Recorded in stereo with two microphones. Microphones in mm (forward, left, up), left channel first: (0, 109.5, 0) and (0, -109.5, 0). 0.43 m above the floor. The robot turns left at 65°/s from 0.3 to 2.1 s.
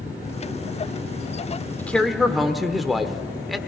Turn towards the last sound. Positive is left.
turn(degrees=0)  # may be behind; listen again after turning